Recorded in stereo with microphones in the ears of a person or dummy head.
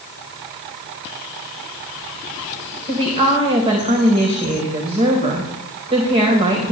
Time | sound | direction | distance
2.9 | a woman speaking | 30° right (ahead or behind) | 1.6 m